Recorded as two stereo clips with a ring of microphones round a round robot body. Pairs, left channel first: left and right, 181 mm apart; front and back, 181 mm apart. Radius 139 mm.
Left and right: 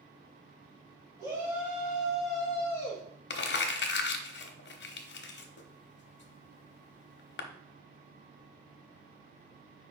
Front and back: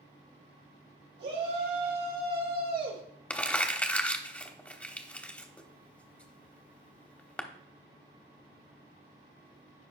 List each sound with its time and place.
1.2 s a shout: 165° right, 3 m; by 3.0 s 160° left, 2.5 m
3.3 s crumpling: 80° left, 1.0 m